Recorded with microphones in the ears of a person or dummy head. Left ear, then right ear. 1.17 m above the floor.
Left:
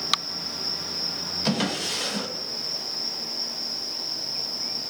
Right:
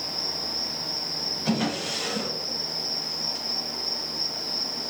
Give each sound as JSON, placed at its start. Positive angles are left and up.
{"t": 1.4, "sound": "a drawer", "side_deg": 75, "distance_m": 1.0}